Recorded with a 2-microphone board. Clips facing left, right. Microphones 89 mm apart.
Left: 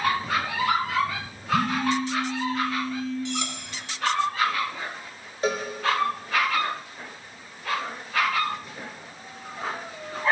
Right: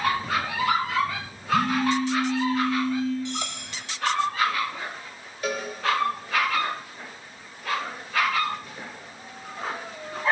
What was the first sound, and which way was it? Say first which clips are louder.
A phone buzzing: right 1 dB; 35° left (ahead or behind).